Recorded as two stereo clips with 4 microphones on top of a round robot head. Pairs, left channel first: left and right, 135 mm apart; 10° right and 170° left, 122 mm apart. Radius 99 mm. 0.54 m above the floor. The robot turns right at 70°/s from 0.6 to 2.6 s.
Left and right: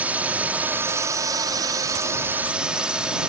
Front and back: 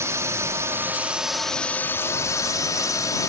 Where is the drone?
155° right; by 3.3 s 15° right.